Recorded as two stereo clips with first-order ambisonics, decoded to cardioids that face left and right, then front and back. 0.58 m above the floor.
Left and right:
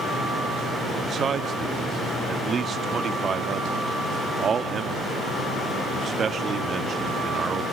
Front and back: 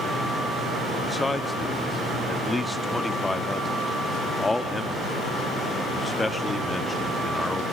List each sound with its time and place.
1.1 s a man speaking: 75° right, 0.6 m